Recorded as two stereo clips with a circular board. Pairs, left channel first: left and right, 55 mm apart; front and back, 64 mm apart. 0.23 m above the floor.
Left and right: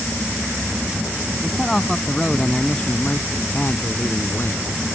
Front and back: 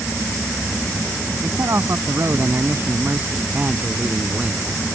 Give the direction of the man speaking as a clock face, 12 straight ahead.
6 o'clock.